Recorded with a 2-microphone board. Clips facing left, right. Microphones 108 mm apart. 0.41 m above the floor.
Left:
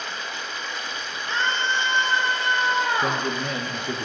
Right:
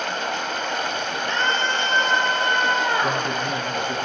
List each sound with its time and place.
0.0 s running water: 70° right (ahead or behind), 1.4 m
1.3 s a scream: 20° left (ahead or behind), 8 m
3.0 s a man speaking: 80° left, 6 m